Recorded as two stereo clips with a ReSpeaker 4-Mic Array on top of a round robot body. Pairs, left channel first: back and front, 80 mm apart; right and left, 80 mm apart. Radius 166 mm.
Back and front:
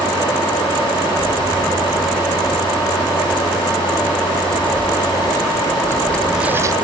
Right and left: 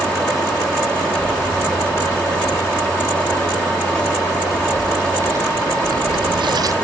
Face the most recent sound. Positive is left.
turn(degrees=45)